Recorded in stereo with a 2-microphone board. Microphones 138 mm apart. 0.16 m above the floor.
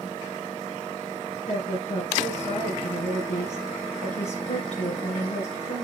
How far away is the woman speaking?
About 2.5 m.